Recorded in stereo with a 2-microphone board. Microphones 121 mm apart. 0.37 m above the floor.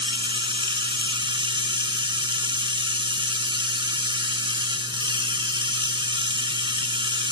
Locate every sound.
0.0 s running water: 50° right (ahead or behind), 1.4 m